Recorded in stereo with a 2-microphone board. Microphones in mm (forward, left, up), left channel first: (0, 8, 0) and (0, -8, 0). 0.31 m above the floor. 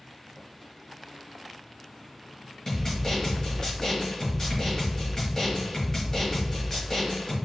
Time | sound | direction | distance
2.7 | a snare drum | 30° left (ahead or behind) | 1.2 m